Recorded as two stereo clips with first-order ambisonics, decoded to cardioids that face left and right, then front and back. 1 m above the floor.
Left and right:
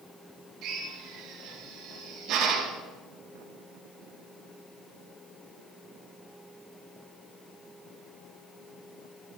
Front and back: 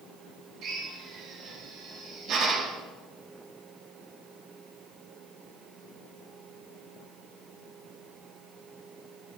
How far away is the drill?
About 5 m.